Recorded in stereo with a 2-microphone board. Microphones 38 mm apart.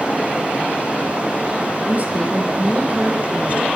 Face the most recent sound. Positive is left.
turn(degrees=-35)  # may be behind; listen again after turning